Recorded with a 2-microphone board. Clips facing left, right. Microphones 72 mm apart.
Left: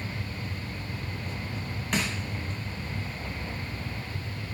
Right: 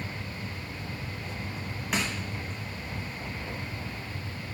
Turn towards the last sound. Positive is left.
turn(degrees=-5)  # may be behind; listen again after turning